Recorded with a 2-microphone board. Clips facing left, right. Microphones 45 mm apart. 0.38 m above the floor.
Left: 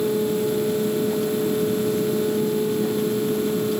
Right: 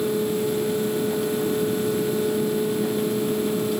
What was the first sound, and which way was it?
Only background noise.